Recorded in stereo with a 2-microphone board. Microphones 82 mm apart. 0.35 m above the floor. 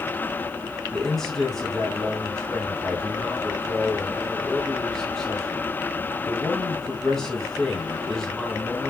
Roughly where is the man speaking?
Centre.